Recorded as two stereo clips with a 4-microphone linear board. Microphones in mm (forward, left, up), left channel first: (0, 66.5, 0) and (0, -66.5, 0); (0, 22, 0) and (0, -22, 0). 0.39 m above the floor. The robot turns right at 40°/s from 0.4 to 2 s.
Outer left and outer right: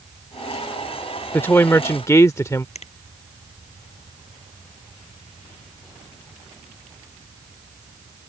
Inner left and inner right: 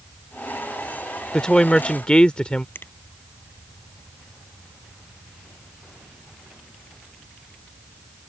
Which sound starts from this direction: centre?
A woman speaking, at 1.3 s.